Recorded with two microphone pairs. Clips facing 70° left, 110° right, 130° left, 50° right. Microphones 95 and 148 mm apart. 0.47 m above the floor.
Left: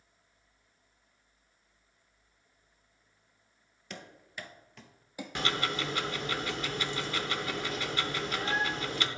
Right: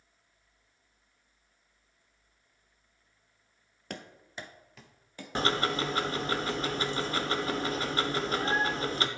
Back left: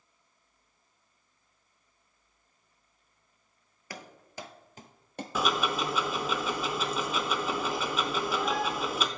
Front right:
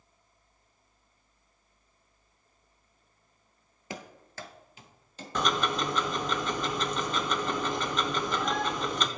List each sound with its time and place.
3.9 s running footsteps: 115° right, 0.6 m; by 5.2 s 140° left, 0.9 m
5.3 s ticking: 150° right, 0.6 m